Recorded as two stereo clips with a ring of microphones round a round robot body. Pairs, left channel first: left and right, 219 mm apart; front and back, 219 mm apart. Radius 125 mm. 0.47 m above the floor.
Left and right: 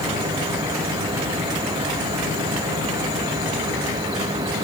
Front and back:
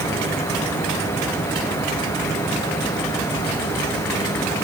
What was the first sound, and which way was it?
Only background noise.